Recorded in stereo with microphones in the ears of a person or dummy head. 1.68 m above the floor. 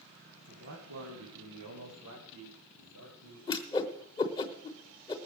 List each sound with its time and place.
0.5 s a man speaking: 55° right (ahead or behind), 1.9 m; by 3.4 s 80° right, 4.5 m
3.5 s a whoosh: 30° left (ahead or behind), 1.0 m